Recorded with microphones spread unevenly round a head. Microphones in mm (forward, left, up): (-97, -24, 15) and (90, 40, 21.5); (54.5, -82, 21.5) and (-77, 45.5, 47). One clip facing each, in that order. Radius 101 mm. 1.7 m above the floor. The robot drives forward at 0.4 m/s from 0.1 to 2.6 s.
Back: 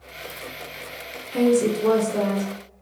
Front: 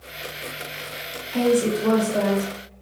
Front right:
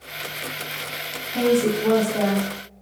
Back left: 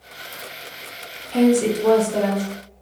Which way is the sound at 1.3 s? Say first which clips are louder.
Back 1 dB, back left 3 dB; 130° left.